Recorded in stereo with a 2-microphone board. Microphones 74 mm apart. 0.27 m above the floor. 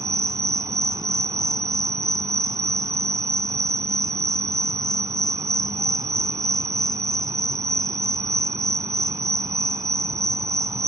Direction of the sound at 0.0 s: 50° right (ahead or behind).